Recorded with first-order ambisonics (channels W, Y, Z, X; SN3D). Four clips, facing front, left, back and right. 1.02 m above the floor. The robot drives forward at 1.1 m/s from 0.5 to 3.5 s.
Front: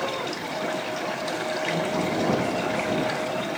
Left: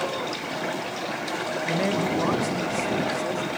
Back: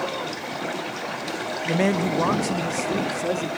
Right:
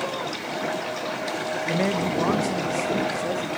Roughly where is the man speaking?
Behind.